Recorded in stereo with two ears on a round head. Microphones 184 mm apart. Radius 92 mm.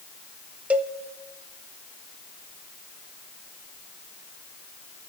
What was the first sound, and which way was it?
A cowbell, 5° right (ahead or behind).